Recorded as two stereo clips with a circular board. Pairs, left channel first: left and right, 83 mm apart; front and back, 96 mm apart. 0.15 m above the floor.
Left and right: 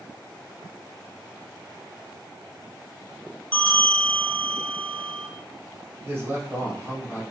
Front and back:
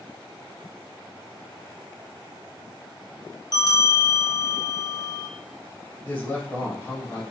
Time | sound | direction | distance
3.5 | a bell | 20° left | 0.9 m
6.0 | a man speaking | 50° right | 1.4 m